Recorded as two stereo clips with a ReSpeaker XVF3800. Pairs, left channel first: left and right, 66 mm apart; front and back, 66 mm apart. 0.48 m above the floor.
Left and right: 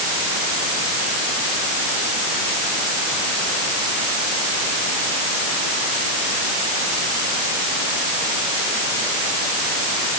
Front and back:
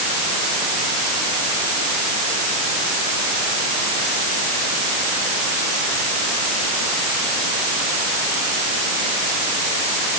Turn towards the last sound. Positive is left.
No sound to turn to.